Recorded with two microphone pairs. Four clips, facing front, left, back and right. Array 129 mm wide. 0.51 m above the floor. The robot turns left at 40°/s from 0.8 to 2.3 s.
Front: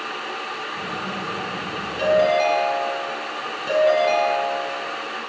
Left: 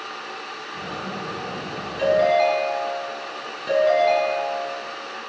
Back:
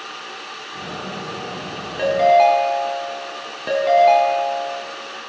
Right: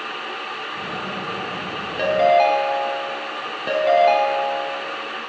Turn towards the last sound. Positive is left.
turn(degrees=-140)